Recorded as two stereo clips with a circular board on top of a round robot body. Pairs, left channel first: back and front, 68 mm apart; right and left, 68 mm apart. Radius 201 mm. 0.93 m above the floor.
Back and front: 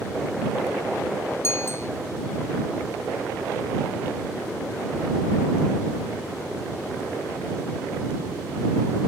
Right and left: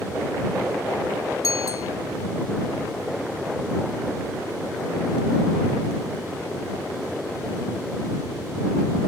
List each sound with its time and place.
1.4 s a bicycle bell: 125° right